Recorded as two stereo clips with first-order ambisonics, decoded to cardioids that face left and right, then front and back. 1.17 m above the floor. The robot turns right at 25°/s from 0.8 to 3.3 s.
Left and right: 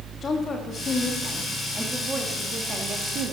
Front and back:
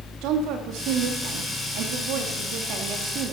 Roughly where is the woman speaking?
Behind.